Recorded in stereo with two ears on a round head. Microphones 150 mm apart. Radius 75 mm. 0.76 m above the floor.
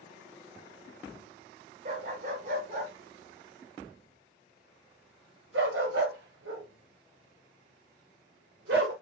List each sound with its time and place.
1.9 s a dog barking: 50° right (ahead or behind), 4 m; by 8.9 s 80° right, 5.5 m